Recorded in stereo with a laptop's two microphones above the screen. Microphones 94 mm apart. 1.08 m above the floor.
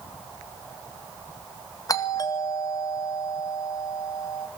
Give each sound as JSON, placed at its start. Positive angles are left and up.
{"t": 1.9, "sound": "a doorbell", "side_deg": 40, "distance_m": 2.0}